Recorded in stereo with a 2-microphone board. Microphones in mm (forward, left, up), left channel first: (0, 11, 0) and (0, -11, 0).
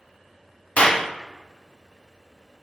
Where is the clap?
65° left (ahead or behind), 0.6 m.